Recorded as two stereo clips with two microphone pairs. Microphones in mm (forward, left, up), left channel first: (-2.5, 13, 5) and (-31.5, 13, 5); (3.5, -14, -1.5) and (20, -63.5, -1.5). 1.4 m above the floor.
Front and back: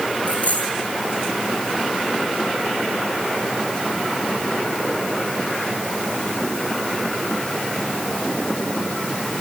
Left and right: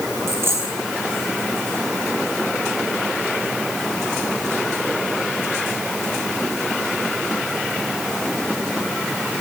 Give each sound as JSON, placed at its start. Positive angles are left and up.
{"t": 0.3, "sound": "a dropped coin", "azimuth_deg": -35, "distance_m": 5.0}